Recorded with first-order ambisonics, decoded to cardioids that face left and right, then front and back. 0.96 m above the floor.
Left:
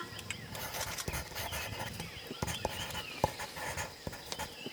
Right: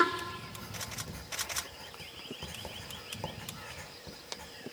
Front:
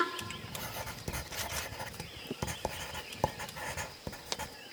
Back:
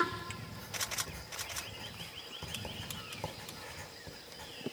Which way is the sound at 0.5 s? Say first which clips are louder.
Left 2 dB, back 6 dB; 45° left.